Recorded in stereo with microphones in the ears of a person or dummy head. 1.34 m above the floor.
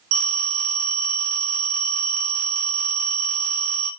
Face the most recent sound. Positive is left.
turn(degrees=-70)  # may be behind; listen again after turning